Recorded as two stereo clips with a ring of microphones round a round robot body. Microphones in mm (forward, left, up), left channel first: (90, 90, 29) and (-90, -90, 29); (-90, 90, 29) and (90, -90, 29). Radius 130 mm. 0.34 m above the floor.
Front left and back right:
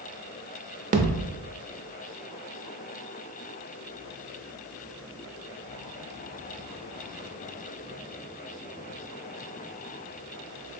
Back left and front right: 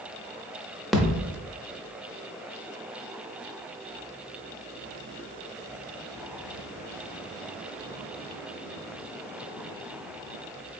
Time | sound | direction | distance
0.9 | a thud | 135° right | 0.5 m